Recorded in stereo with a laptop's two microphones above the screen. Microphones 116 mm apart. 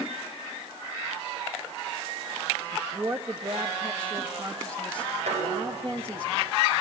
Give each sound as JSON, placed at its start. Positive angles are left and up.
{"t": 2.7, "sound": "a woman speaking", "side_deg": -35, "distance_m": 1.4}
{"t": 5.3, "sound": "dishes clattering", "side_deg": -80, "distance_m": 2.5}